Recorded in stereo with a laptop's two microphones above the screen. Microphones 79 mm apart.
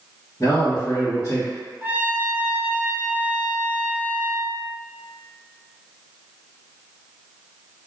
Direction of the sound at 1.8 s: 25° right (ahead or behind).